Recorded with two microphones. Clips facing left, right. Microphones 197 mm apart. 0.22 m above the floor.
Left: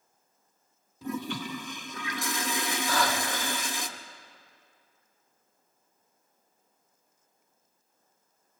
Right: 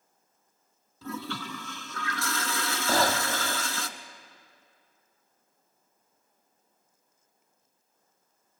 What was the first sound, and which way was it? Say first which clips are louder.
A toilet flushing: left 3 dB; 15° left (ahead or behind).